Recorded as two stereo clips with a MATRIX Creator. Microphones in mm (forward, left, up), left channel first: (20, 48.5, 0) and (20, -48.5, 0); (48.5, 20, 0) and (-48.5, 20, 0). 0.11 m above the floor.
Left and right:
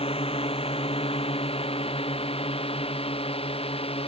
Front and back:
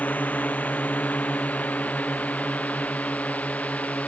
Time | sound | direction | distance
0.0 | a drone | 75° left | ?